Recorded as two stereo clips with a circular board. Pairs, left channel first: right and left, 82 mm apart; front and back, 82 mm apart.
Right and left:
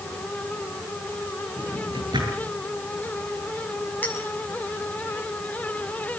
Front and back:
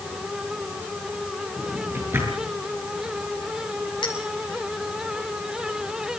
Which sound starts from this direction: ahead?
A clink, at 4.0 s.